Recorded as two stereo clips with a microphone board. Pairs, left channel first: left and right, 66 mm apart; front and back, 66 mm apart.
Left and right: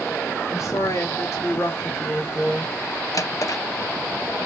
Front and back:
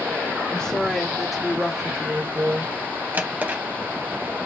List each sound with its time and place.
0.5 s a woman speaking: 70° left, 1.7 m; by 2.7 s 155° left, 1.4 m
3.1 s a drawer: 120° left, 0.5 m